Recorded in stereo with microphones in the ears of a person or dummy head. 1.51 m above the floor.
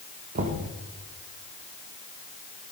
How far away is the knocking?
About 1.5 m.